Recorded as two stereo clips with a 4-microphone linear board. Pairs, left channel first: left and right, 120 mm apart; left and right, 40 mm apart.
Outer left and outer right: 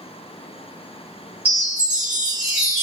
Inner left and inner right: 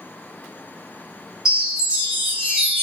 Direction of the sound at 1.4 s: 15° right (ahead or behind).